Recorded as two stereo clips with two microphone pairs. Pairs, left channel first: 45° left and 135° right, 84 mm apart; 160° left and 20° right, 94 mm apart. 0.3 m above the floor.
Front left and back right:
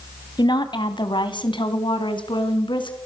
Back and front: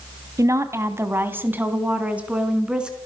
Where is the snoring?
I don't hear snoring.